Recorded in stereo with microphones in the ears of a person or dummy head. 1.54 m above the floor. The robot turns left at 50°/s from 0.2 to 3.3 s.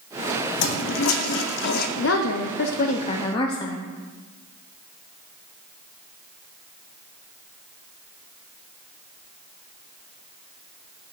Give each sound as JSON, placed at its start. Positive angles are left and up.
{"t": 0.6, "sound": "a toilet flushing", "azimuth_deg": 120, "distance_m": 0.7}
{"t": 2.0, "sound": "a woman speaking", "azimuth_deg": 100, "distance_m": 0.6}